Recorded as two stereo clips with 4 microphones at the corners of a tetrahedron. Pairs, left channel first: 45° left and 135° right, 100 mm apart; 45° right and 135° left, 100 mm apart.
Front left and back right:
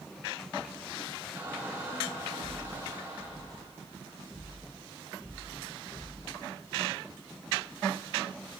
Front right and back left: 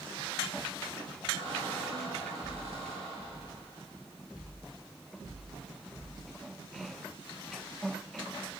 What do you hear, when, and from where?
1.4 s a squeak: 155° left, 9.5 m